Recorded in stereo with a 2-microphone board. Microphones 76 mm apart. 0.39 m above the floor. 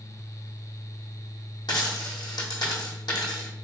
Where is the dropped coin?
75° left (ahead or behind), 1.7 m.